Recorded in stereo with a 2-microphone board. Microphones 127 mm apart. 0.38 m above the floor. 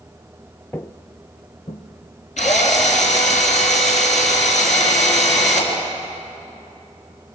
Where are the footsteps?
15° left (ahead or behind), 0.5 m; by 3.4 s 65° left (ahead or behind), 4 m.